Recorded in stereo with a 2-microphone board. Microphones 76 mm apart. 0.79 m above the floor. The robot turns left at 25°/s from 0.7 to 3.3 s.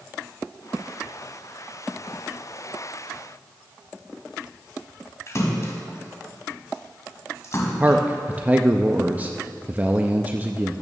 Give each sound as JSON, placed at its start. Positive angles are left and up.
{"t": 5.3, "sound": "a splash", "side_deg": 40, "distance_m": 1.9}
{"t": 7.8, "sound": "a man speaking", "side_deg": -20, "distance_m": 0.5}